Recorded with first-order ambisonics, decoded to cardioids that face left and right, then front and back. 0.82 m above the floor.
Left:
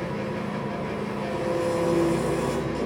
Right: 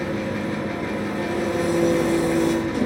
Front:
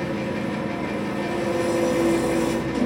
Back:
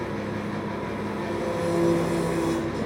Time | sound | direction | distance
0.0 | an engine running | 80° right | 4 m